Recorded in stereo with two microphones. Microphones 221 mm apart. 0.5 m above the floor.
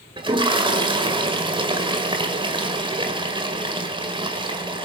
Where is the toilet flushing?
25° right (ahead or behind), 1.9 m.